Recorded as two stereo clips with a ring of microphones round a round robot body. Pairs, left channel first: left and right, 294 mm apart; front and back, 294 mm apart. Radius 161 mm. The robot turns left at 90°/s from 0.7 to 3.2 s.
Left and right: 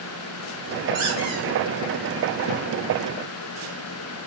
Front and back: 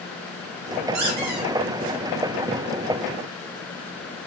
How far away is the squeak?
About 0.7 m.